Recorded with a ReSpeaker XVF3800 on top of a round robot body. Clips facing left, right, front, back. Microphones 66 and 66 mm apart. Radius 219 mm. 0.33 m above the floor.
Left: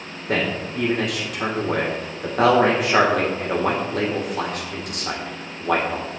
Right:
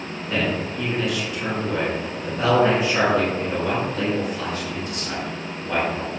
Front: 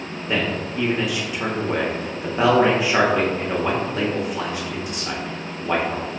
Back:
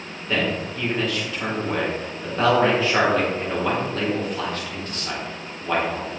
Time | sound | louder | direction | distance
0.3 | a man speaking | left 1 dB, even | 75° left | 2 m